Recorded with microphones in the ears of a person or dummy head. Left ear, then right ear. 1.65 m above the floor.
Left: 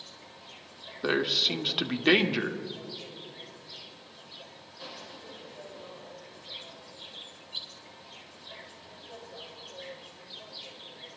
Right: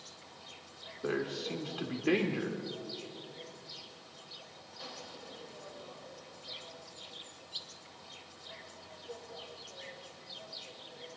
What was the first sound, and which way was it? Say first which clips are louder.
An insect: left 4 dB; 35° right (ahead or behind).